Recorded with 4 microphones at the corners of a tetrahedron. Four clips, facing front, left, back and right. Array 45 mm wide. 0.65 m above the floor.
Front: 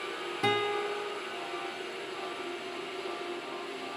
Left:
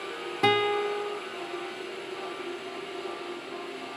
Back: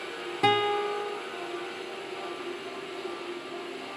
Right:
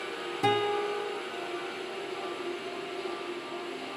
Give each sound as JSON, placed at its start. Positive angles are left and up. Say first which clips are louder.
{"t": 0.4, "sound": "a guitar", "louder": "left 3 dB, back 5 dB", "azimuth_deg": 125, "distance_m": 1.4}